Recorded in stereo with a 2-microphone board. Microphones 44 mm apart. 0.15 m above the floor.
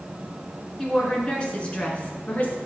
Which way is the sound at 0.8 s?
15° left (ahead or behind).